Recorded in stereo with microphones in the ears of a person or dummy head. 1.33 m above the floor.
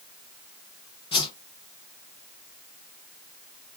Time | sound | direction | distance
1.1 | a whoosh | 25° left (ahead or behind) | 0.5 m